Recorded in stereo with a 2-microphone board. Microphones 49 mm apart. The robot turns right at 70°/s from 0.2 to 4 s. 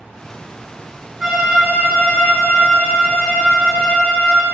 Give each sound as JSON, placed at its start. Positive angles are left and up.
{"t": 1.2, "sound": "a violin", "azimuth_deg": -10, "distance_m": 1.9}